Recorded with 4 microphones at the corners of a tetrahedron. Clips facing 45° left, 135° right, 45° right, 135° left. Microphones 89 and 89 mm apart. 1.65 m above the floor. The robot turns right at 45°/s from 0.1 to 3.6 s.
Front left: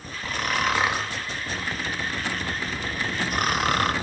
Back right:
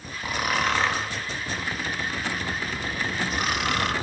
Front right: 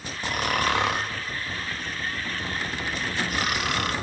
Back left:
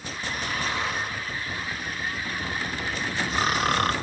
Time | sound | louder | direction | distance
0.2 | snoring | even, front right 5 dB | 60° right | 0.5 m